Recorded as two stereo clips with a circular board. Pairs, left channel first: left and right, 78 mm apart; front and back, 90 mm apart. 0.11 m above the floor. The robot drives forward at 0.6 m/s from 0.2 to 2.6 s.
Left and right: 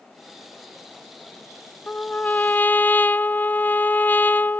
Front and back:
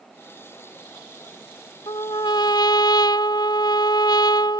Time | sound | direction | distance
1.9 | a trumpet | 20° left | ?